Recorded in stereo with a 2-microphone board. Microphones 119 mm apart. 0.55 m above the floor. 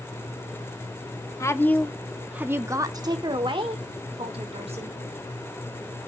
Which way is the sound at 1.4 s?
25° left (ahead or behind).